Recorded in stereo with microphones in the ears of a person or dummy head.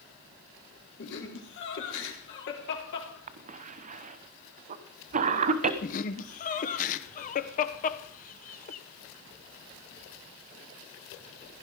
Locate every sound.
1.0 s laughter: 55° left (ahead or behind), 4.5 m
3.3 s a cough: 40° right (ahead or behind), 1.2 m
5.8 s laughter: 40° left (ahead or behind), 1.0 m